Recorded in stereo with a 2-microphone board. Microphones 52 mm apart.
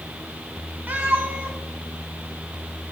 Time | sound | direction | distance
0.9 | a cat meowing | 30° right (ahead or behind) | 1.9 m